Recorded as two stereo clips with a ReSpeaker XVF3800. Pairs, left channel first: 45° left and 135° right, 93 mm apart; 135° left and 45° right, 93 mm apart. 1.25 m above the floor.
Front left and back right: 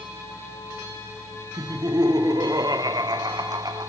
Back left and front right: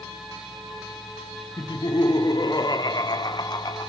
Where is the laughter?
Straight behind, 0.6 m.